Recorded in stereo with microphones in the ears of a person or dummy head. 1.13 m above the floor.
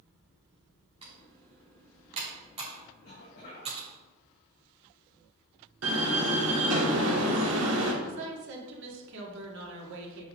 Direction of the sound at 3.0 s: 40° left (ahead or behind).